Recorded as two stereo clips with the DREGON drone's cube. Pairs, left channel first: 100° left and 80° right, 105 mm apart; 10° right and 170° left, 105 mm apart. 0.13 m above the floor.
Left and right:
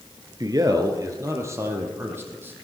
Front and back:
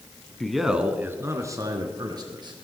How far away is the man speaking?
About 1.4 m.